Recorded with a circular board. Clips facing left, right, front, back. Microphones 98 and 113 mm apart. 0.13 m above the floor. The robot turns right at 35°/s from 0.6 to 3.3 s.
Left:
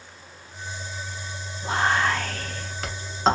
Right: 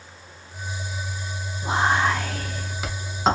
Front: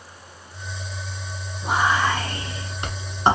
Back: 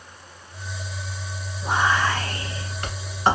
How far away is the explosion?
No explosion in this recording.